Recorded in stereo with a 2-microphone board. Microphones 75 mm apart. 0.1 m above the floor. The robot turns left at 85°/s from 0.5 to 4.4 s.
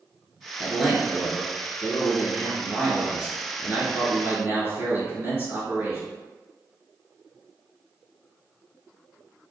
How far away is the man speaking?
About 1.5 m.